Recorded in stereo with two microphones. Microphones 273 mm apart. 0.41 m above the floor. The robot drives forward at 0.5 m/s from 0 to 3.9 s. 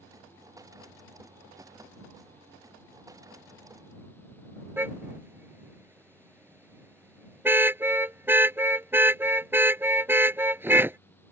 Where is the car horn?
10° right (ahead or behind).